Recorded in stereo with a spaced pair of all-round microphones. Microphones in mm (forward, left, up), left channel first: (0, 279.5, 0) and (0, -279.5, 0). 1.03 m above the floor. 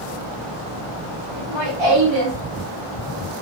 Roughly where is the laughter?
Right.